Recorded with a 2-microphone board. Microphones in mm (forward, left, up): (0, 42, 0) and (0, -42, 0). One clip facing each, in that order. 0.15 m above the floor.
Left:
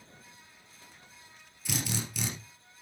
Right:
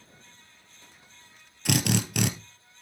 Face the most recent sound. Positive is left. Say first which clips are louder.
# right 9 dB
turn(degrees=-70)  # may be behind; listen again after turning